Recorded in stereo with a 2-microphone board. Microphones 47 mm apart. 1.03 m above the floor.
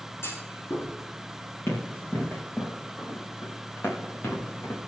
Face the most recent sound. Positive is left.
turn(degrees=70)  # may be behind; listen again after turning